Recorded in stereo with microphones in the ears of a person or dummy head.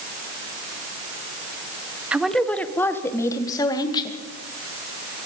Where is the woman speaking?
10° right (ahead or behind), 1.2 m; by 4.2 s 20° left (ahead or behind), 2.5 m.